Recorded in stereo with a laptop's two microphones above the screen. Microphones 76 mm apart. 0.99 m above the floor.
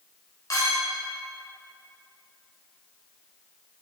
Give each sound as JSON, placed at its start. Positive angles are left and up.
{"t": 0.5, "sound": "a clink", "side_deg": 55, "distance_m": 2.5}